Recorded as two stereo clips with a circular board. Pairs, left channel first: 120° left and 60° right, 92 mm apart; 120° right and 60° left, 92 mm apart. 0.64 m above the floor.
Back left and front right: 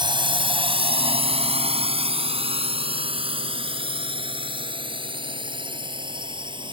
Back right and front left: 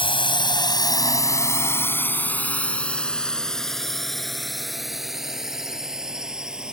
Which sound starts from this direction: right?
A drone, at 0.0 s.